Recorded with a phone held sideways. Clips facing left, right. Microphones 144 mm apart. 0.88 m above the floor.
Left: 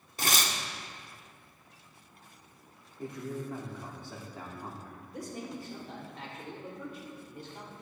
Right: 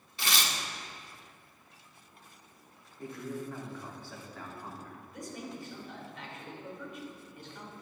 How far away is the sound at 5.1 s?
About 2.5 m.